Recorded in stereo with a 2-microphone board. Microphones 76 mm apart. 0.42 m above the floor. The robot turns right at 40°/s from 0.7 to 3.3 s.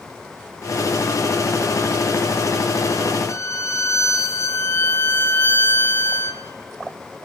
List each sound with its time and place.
3.3 s a violin: 40° left (ahead or behind), 1.7 m